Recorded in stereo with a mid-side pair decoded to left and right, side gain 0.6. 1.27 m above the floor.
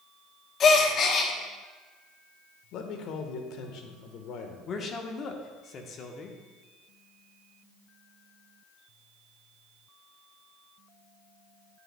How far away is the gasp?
About 1.1 m.